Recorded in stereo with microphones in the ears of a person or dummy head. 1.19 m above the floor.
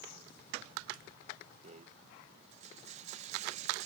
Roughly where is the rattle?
Right.